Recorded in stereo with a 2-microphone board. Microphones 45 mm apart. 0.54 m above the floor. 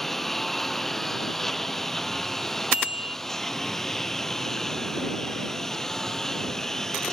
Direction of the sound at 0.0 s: 5° left (ahead or behind).